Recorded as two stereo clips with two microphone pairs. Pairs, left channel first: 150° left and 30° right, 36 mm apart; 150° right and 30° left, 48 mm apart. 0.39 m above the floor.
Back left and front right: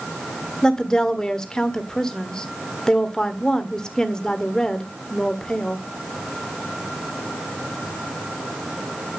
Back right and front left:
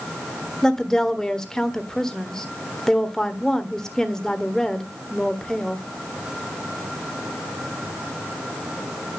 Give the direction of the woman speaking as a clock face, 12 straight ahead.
7 o'clock.